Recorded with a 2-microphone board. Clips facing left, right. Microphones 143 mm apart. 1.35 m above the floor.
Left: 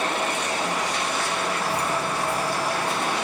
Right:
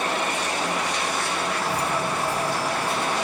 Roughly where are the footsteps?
Right.